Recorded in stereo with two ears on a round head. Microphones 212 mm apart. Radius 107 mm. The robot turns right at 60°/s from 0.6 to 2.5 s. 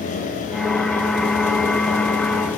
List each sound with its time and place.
Only background noise.